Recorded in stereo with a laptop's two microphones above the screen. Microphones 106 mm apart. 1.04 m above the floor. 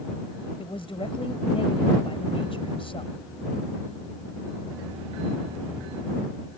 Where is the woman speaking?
60° left (ahead or behind).